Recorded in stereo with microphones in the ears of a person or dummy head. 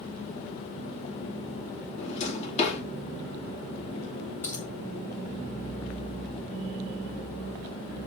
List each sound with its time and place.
2.0 s a drawer: 35° left (ahead or behind), 2 m
4.4 s a dropped coin: 10° left (ahead or behind), 2 m